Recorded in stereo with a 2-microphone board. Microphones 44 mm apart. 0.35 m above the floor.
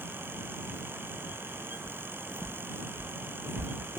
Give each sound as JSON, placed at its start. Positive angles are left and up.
{"t": 1.9, "sound": "footsteps", "side_deg": -85}